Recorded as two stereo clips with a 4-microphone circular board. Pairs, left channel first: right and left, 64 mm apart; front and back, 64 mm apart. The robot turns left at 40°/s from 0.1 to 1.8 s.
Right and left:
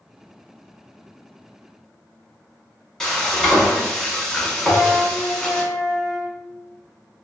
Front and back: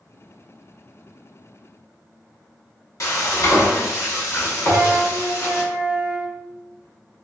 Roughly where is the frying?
Ahead.